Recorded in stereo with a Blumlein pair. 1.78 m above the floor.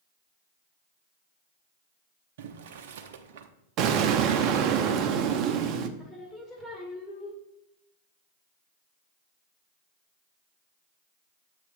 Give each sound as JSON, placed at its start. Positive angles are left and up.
{"t": 2.4, "sound": "boiling", "azimuth_deg": -55, "distance_m": 0.6}
{"t": 3.8, "sound": "an explosion", "azimuth_deg": -35, "distance_m": 0.6}
{"t": 6.0, "sound": "singing", "azimuth_deg": 20, "distance_m": 1.4}